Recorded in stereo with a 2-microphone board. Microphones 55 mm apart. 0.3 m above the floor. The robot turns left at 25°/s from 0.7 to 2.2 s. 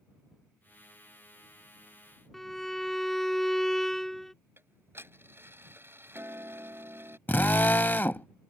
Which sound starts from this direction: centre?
A violin, at 2.3 s.